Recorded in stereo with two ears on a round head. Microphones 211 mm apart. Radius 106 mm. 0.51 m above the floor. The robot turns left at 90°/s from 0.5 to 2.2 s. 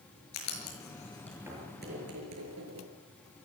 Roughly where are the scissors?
No scissors in this recording.